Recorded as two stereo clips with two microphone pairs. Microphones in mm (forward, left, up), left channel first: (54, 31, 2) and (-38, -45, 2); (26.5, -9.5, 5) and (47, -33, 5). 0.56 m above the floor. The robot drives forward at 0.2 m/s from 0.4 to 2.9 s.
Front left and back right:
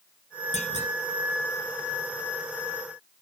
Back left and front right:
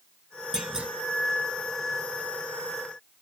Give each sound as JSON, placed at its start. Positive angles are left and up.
{"t": 0.5, "sound": "a clunk", "azimuth_deg": 20, "distance_m": 0.6}